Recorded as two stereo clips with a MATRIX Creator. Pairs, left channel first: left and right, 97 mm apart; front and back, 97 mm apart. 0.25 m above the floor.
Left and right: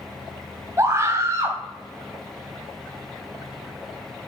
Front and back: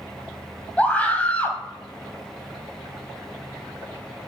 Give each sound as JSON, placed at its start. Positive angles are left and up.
{"t": 0.8, "sound": "a scream", "azimuth_deg": -60, "distance_m": 1.5}